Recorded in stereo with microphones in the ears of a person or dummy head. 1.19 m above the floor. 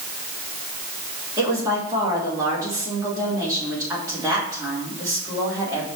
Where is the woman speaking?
20° right (ahead or behind), 3 m.